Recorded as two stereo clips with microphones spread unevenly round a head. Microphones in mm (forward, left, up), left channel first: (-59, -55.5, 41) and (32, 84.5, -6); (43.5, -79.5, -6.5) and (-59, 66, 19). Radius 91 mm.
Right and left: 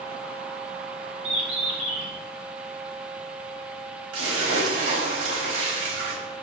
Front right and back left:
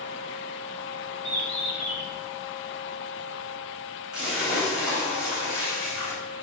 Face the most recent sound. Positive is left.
turn(degrees=40)